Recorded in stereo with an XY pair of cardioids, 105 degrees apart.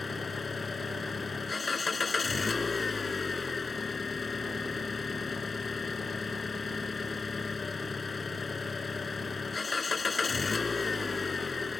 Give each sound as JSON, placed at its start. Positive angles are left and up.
{"t": 0.0, "sound": "an engine running", "azimuth_deg": 30}